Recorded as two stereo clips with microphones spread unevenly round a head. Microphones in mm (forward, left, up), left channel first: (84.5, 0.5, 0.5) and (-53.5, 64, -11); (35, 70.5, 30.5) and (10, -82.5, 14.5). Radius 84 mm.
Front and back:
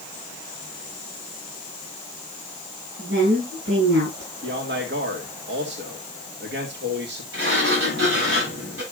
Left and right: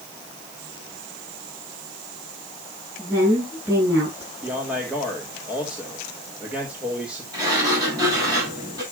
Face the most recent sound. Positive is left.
turn(degrees=-170)